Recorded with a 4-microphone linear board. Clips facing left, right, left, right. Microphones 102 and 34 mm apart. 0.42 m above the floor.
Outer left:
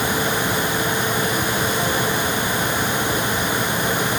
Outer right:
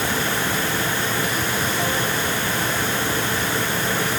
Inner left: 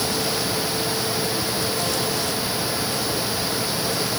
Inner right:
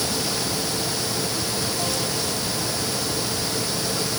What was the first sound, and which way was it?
Only background noise.